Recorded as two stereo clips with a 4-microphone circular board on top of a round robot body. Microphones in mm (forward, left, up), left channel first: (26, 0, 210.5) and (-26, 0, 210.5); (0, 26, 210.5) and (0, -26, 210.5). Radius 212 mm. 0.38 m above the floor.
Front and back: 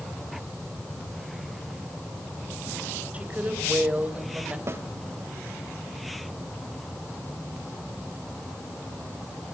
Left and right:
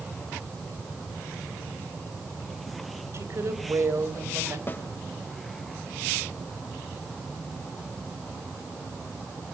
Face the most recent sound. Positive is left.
turn(degrees=140)